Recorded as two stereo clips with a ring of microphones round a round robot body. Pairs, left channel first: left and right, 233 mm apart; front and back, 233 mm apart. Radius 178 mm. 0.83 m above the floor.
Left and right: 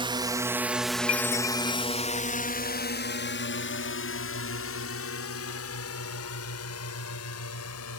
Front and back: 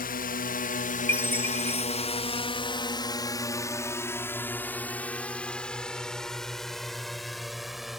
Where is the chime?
80° left.